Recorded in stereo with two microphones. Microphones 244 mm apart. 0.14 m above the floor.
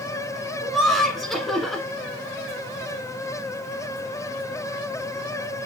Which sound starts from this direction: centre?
Laughter, at 0.6 s.